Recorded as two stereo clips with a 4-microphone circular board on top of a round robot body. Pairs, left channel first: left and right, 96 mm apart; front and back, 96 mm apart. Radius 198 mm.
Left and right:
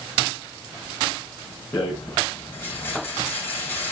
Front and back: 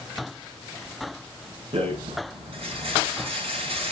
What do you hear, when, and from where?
1.7 s a rattle: 160° left, 6 m